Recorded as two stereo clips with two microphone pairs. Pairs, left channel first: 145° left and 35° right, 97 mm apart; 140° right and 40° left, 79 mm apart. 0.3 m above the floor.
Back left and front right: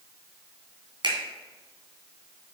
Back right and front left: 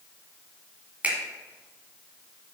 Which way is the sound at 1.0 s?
30° right.